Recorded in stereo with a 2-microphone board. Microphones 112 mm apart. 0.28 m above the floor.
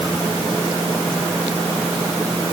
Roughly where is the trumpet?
No trumpet in this recording.